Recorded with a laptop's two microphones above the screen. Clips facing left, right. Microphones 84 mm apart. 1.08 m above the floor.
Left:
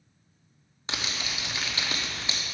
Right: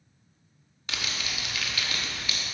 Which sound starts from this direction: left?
Crumpling, at 0.9 s.